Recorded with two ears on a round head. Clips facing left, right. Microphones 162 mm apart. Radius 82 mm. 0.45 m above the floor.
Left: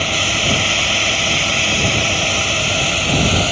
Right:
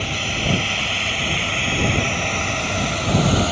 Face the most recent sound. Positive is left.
turn(degrees=30)  # may be behind; listen again after turning